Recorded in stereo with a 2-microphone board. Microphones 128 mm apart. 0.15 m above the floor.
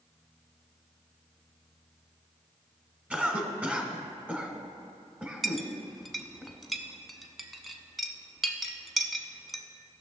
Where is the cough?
10° right (ahead or behind), 1.2 m.